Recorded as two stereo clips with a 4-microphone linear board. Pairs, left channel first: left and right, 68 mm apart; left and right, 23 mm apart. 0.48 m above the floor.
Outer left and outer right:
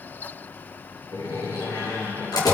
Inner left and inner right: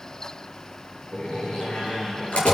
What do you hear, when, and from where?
1.1 s a door slam: 80° left, 6.5 m